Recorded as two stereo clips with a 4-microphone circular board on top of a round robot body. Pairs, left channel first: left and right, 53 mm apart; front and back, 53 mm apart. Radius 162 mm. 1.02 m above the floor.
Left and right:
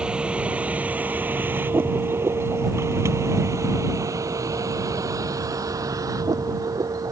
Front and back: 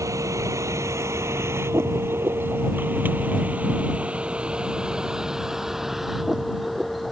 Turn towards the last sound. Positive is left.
turn(degrees=-90)